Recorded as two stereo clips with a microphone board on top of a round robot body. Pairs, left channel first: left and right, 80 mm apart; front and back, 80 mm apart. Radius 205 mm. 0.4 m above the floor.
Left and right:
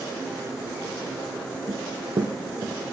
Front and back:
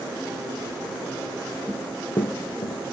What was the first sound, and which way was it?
Running footsteps, 110° right.